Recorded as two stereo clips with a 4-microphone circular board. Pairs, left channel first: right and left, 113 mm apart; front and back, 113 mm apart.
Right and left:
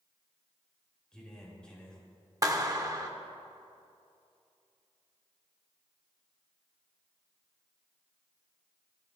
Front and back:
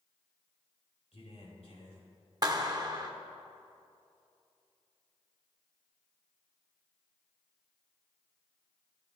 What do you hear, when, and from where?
1.1 s a man speaking: 10° right, 4 m
2.4 s a clap: 140° left, 0.9 m